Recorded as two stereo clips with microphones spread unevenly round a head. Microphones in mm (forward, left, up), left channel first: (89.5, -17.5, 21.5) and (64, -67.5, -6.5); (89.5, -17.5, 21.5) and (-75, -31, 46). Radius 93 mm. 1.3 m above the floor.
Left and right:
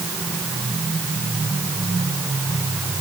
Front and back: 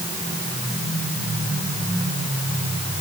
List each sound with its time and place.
Only background noise.